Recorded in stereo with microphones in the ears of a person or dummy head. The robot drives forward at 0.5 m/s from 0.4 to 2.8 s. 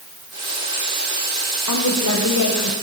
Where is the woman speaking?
90° left, 1.8 m; by 2.7 s 75° left (ahead or behind), 1.9 m.